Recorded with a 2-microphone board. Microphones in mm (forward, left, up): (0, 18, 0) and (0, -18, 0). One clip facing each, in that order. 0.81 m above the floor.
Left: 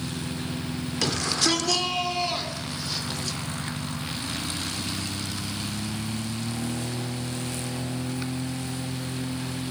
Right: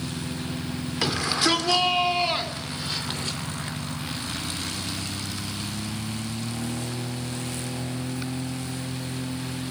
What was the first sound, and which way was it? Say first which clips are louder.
A shout: right 2 dB; 15° right (ahead or behind).